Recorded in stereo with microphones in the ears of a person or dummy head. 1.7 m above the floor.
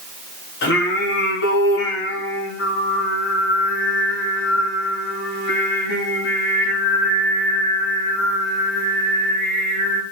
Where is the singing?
75° left (ahead or behind), 5.5 m.